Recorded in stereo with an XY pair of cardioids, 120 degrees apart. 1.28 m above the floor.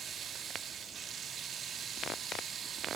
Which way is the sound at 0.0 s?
45° right.